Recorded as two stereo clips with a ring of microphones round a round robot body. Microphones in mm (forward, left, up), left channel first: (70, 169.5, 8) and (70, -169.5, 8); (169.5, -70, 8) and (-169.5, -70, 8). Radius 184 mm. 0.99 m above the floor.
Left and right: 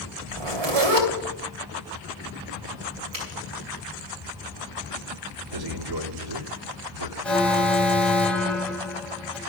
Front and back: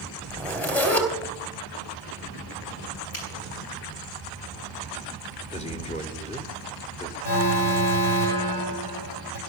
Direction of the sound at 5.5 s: 70° right.